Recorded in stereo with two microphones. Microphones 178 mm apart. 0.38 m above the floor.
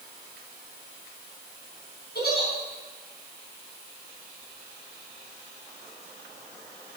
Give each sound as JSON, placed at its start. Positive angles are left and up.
{"t": 2.1, "sound": "a giggle", "side_deg": 65, "distance_m": 4.0}